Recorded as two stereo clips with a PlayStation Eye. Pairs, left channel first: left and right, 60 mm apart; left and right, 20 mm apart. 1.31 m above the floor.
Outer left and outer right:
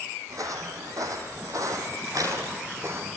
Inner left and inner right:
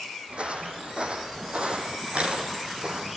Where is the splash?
I don't hear a splash.